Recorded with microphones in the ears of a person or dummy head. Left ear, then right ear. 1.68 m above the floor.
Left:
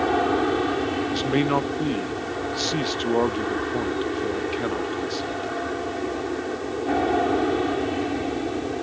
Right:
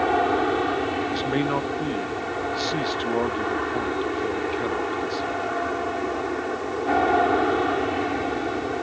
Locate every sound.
0.0 s an aircraft: 20° right (ahead or behind); by 8.8 s 45° right (ahead or behind)
1.1 s a man speaking: centre (ahead or behind)